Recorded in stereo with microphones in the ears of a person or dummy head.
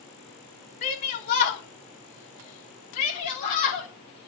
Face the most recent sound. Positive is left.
turn(degrees=40)  # may be behind; listen again after turning